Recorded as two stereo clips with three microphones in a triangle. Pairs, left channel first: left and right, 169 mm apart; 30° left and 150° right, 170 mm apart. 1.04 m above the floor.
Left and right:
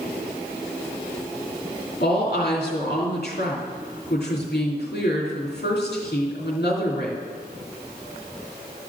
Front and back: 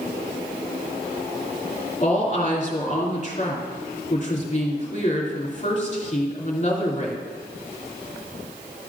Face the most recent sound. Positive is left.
turn(degrees=75)